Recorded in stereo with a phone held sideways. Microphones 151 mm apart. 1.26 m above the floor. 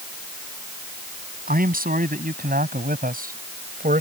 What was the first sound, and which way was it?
A man speaking, 75° right (ahead or behind).